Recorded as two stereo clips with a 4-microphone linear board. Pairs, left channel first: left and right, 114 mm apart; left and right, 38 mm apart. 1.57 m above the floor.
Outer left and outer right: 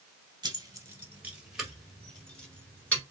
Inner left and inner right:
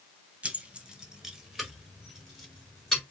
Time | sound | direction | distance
0.4 | keys jangling | 40° right (ahead or behind) | 1.1 m